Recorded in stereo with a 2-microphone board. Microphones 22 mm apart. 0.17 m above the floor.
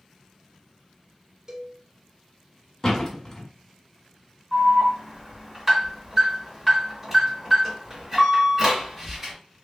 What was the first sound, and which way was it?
A cowbell, 25° right (ahead or behind).